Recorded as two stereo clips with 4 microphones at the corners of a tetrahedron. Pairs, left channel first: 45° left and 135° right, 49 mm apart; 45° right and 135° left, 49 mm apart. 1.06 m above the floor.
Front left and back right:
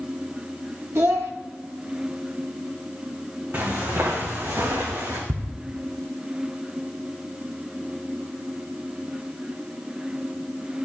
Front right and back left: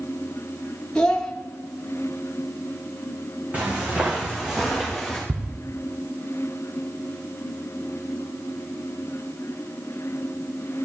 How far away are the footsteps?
About 3.5 m.